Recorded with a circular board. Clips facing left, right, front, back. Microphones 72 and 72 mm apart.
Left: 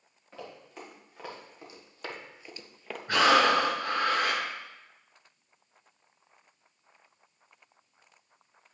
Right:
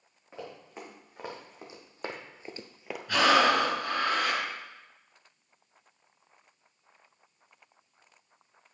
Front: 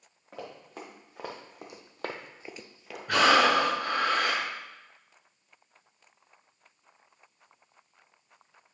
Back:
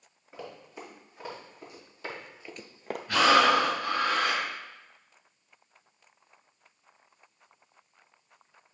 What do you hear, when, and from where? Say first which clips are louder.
0.3 s running footsteps: right 1 dB, front 1 dB; 15° right, 3.5 m; by 3.0 s 175° right, 0.8 m
3.1 s breathing: left 1 dB, even; 30° left, 3.5 m